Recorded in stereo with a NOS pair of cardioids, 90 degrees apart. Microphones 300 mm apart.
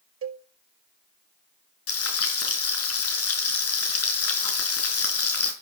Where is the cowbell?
50° right, 1.9 m.